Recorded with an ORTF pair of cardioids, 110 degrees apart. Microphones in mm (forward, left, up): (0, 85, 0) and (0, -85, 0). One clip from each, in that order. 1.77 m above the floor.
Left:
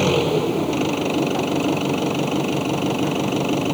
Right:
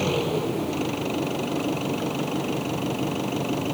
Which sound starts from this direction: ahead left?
An engine running, at 0.0 s.